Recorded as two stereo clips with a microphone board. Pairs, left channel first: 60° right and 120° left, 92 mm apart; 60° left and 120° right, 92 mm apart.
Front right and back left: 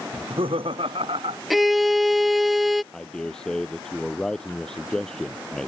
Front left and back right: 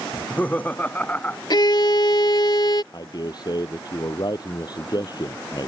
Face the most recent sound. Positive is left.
turn(degrees=20)